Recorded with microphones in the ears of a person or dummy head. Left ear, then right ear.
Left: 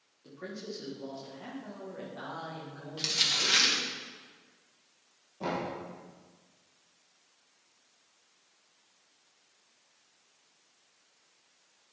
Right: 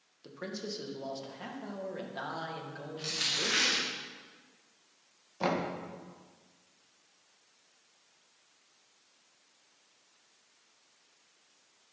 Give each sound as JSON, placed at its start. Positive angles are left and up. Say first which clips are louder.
{"t": 0.2, "sound": "a man speaking", "louder": "right 2 dB", "side_deg": -80, "distance_m": 2.0}
{"t": 3.0, "sound": "crumpling", "louder": "left 4 dB", "side_deg": 45, "distance_m": 2.5}
{"t": 5.4, "sound": "knocking", "louder": "right 3 dB", "side_deg": -45, "distance_m": 1.7}